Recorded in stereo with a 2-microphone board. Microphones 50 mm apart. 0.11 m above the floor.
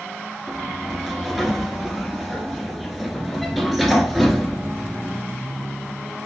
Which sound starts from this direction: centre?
A sliding door, at 0.5 s.